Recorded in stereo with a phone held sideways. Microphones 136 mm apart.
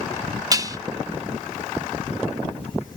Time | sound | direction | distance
0.5 | dishes clattering | 25° right (ahead or behind) | ?